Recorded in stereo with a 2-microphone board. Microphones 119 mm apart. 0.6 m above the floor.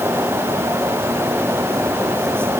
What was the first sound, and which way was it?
Only background noise.